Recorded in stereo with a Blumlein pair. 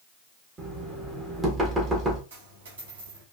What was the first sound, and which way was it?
Knocking, 20° right.